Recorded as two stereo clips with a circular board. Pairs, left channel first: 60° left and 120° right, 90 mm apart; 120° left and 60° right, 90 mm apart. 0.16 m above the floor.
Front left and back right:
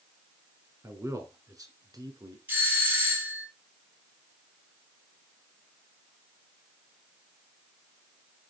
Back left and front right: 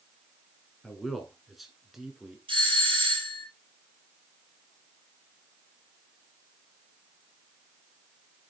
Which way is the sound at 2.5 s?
50° right.